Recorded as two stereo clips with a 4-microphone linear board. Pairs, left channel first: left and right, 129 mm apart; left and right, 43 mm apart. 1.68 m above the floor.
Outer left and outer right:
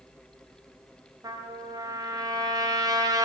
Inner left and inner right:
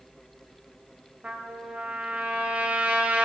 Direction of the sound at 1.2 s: 30° right (ahead or behind).